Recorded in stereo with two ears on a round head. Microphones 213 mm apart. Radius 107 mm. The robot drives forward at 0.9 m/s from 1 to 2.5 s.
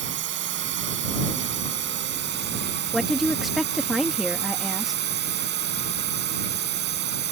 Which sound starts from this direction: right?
A drone, at 0.0 s.